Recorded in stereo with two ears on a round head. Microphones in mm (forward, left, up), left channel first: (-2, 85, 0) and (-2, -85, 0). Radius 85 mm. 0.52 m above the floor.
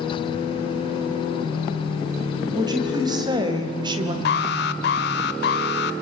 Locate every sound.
2.5 s a woman speaking: 20° right (ahead or behind), 3.5 m; by 4.2 s 25° right (ahead or behind), 2.5 m
4.2 s an alarm: 60° left (ahead or behind), 1.4 m